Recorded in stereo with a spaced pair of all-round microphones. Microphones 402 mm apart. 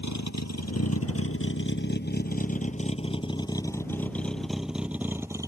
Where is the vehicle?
45° left (ahead or behind); by 5.5 s 10° right (ahead or behind).